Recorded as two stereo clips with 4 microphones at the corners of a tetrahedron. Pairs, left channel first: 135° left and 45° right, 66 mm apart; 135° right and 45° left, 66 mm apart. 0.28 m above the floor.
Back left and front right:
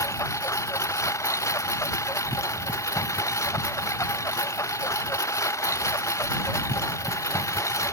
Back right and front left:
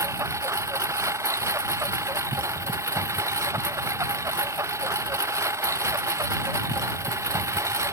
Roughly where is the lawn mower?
Left.